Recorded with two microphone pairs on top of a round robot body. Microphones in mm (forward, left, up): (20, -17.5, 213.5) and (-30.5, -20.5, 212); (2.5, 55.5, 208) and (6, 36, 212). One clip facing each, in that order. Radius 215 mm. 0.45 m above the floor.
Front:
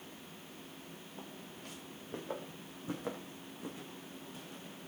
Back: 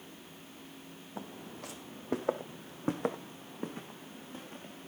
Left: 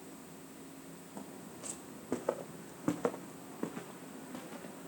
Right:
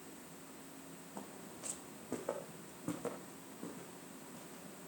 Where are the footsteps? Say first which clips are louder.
Back 8 dB, left 2 dB; 160° right, 1.8 m; by 4.9 s 125° left, 3 m.